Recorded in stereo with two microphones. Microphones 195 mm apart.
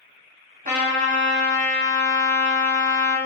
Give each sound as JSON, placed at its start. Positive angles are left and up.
{"t": 0.7, "sound": "a trumpet", "side_deg": -45, "distance_m": 0.7}